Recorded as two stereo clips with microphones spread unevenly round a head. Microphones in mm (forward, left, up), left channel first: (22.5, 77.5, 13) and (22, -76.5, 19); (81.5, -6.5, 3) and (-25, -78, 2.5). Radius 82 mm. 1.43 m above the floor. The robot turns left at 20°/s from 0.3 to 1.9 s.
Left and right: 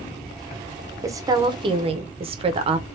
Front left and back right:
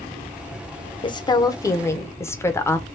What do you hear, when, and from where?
1.0 s a woman speaking: 20° right, 0.7 m; by 2.9 s 35° right, 0.7 m